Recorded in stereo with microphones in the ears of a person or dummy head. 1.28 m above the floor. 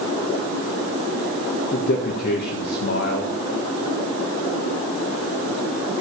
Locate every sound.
1.7 s a man speaking: 55° left (ahead or behind), 1.8 m